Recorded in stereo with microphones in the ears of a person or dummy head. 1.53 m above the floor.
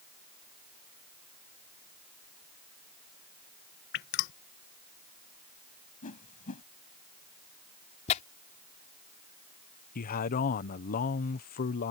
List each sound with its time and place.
3.9 s dripping: 50° left (ahead or behind)
6.0 s a whoosh: 35° left (ahead or behind)
8.1 s tearing paper: 40° left (ahead or behind)
9.9 s a man speaking: 45° left (ahead or behind)